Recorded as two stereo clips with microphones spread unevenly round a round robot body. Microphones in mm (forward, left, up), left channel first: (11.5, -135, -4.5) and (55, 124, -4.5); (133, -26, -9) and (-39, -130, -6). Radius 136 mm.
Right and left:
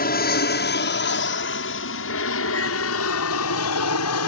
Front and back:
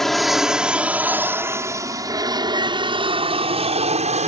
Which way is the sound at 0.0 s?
55° right.